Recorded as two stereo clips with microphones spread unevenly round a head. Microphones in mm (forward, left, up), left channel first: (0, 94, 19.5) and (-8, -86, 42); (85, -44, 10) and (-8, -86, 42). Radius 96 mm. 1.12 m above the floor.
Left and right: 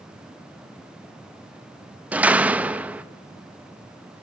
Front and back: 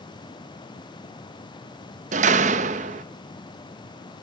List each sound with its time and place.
2.1 s a door slam: 175° right, 0.9 m